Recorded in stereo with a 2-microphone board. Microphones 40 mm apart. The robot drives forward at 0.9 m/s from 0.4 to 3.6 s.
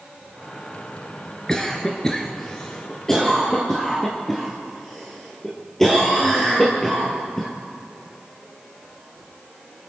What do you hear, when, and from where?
1.5 s a cough: 15° left (ahead or behind), 1.7 m; by 7.5 s 10° left (ahead or behind), 3 m